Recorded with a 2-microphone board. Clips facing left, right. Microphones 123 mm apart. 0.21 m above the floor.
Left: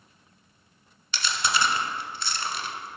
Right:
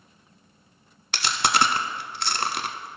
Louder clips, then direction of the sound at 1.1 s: Right 4 dB; 65° right (ahead or behind).